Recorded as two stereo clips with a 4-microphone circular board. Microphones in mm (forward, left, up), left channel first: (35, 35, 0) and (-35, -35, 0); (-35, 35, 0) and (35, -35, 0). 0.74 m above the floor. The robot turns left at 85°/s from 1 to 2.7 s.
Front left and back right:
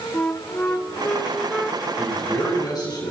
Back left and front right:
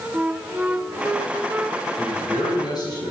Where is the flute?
Straight ahead, 0.6 m; by 1.8 s 70° right, 0.6 m.